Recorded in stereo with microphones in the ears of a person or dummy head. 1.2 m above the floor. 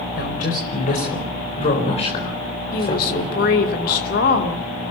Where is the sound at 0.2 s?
50° left (ahead or behind), 4.5 m; by 3.4 s 20° left (ahead or behind), 4 m.